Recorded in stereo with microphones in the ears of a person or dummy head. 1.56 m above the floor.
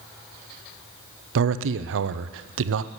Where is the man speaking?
75° right (ahead or behind), 0.6 m.